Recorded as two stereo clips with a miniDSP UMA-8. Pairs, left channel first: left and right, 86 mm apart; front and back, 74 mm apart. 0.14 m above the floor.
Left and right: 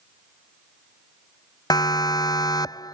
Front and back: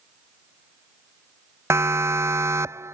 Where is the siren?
130° left.